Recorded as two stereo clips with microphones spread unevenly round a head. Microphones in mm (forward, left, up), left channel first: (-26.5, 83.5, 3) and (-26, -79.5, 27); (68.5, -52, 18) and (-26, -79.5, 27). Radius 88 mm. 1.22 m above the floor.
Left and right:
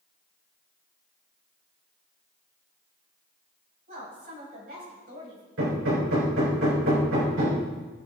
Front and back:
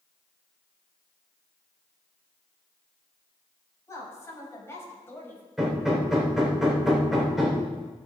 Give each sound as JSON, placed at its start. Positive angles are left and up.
{"t": 3.9, "sound": "a woman speaking", "azimuth_deg": -40, "distance_m": 6.5}
{"t": 5.6, "sound": "hammering", "azimuth_deg": -80, "distance_m": 4.0}